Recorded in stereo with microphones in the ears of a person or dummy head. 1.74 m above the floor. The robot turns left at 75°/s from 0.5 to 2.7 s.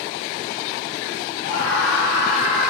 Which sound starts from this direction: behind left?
A scream, at 1.4 s.